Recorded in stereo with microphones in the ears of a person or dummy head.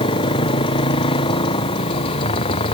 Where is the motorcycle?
30° left (ahead or behind).